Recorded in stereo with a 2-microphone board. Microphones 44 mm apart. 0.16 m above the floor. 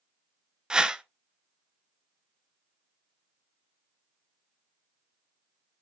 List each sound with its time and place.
0.7 s a whoosh: 15° right (ahead or behind), 0.6 m